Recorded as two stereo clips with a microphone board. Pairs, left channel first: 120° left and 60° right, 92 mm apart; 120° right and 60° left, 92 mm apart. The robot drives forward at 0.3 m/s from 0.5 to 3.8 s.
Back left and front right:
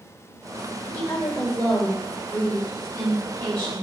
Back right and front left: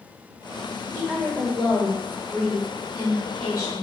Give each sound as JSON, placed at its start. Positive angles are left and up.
{"t": 0.9, "sound": "a woman speaking", "azimuth_deg": 155, "distance_m": 1.0}